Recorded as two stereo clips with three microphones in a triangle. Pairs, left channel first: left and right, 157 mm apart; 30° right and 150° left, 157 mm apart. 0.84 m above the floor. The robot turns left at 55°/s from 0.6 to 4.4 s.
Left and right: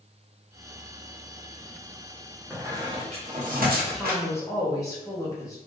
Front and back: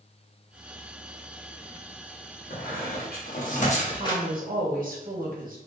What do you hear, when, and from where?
2.5 s a squeak: 5° right, 0.8 m; by 4.2 s 100° right, 0.8 m
3.9 s a woman speaking: 175° right, 0.9 m; by 5.6 s 155° left, 0.9 m